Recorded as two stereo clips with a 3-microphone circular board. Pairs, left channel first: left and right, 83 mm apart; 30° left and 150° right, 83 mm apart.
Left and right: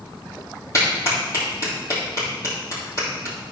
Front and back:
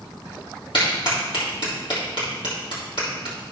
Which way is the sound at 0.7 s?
45° left.